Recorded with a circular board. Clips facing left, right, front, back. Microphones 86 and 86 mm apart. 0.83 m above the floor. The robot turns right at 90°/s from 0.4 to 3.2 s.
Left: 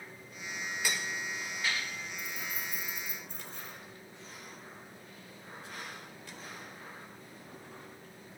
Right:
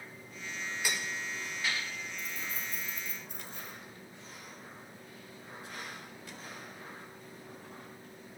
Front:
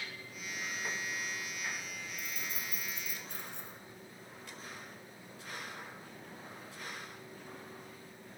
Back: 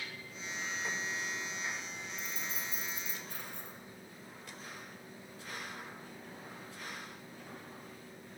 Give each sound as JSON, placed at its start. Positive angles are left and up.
{"t": 2.2, "sound": "keys jangling", "azimuth_deg": -110, "distance_m": 2.5}